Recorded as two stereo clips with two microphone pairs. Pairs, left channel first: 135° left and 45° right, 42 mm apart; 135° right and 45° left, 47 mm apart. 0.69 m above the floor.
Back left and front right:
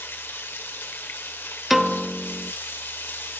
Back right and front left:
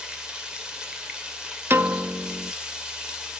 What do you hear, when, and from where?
0.0 s running water: 115° left, 2.5 m
1.7 s a piano: 35° left, 0.6 m